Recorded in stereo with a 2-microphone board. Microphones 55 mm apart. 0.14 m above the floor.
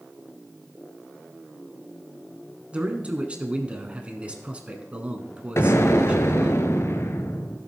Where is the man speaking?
25° right (ahead or behind), 1.3 m.